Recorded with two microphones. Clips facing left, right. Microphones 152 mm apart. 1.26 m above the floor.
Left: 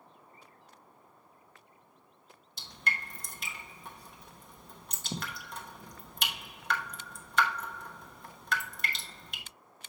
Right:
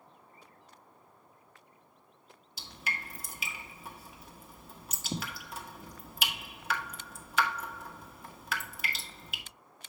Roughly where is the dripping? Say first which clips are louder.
Left 2 dB; centre.